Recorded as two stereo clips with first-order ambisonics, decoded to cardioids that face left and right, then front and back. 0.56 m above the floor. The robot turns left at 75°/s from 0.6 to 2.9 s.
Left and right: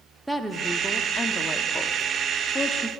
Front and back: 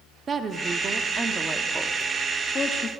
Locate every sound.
0.3 s a woman speaking: 175° right, 1.0 m; by 2.9 s 10° left, 1.0 m